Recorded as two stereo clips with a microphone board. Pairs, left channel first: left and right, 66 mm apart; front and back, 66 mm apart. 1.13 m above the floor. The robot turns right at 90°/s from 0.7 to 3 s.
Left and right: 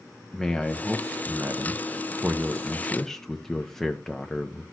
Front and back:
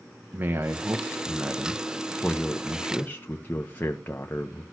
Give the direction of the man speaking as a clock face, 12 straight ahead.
6 o'clock.